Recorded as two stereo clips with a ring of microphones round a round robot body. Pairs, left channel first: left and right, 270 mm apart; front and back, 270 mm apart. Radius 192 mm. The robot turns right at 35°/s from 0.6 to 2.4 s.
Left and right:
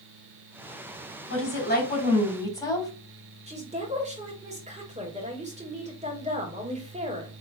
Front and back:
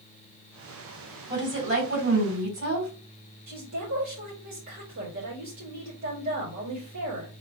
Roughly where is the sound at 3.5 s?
Behind right.